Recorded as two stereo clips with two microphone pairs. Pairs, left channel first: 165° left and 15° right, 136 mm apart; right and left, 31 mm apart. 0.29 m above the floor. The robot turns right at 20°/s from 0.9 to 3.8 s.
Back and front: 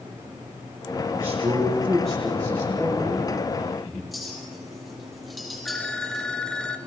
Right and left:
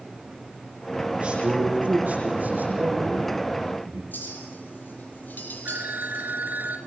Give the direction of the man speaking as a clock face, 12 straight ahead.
11 o'clock.